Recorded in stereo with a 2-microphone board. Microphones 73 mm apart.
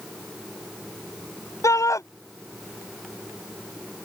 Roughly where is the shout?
Left.